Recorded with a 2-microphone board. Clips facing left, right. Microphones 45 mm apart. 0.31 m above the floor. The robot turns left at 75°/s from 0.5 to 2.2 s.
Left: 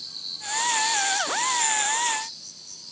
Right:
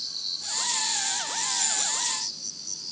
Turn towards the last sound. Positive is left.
turn(degrees=-110)